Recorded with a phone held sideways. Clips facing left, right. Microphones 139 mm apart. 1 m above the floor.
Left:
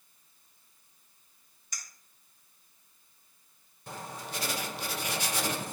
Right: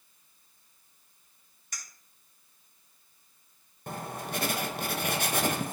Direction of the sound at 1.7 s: 55° right (ahead or behind).